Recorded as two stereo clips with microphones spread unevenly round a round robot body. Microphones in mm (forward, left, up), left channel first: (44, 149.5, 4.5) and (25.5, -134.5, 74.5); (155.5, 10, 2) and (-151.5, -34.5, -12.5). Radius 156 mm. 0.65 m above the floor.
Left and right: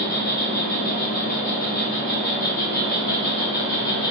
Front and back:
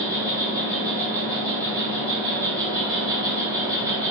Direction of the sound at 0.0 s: 115° left.